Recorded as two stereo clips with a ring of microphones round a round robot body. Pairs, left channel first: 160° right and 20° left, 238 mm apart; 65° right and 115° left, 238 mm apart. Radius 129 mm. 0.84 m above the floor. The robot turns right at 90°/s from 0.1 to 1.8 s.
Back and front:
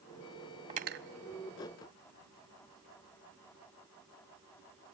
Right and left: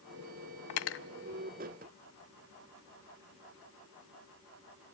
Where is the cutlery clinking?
45° right, 0.5 m; by 1.1 s 15° right, 0.5 m.